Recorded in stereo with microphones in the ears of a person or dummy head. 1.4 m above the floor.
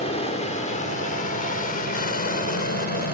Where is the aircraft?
30° left (ahead or behind); by 3.1 s 45° left (ahead or behind).